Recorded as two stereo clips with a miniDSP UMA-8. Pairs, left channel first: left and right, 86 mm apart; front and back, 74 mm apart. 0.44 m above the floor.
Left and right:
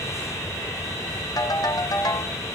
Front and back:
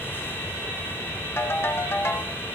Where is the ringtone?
55° left, 1.5 m.